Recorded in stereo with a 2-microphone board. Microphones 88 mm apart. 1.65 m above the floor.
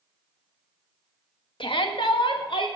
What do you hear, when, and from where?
1.6 s a shout: 70° left (ahead or behind), 1.9 m; by 2.7 s 75° left (ahead or behind), 3.5 m